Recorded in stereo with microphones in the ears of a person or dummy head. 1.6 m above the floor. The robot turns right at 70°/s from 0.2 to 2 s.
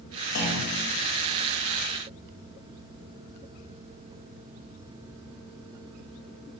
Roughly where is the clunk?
Behind left.